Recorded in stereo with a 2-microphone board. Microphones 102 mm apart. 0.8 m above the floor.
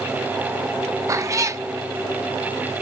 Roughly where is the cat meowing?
Right.